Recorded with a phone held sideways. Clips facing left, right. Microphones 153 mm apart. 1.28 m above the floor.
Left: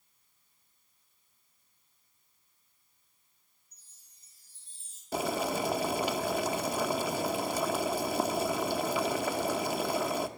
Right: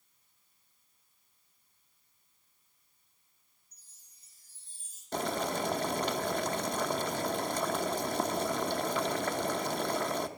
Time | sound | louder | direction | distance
3.7 | a chime | even | 25° left (ahead or behind) | 5 m
5.1 | boiling | left 2 dB | 10° left (ahead or behind) | 0.7 m